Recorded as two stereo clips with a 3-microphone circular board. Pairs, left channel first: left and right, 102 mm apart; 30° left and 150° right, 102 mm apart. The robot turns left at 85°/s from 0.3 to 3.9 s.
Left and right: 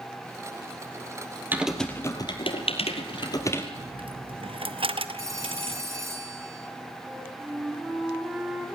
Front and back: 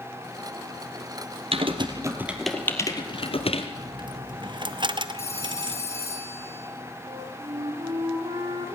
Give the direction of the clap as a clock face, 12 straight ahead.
No clap in this recording.